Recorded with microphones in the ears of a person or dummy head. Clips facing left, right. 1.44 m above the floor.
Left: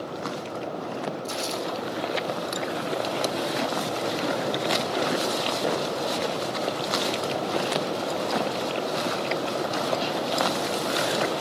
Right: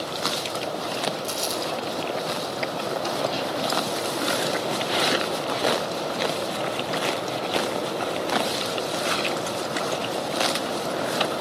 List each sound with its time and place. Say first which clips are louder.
1.2 s crumpling: right 1 dB; 75° right (ahead or behind), 8.5 m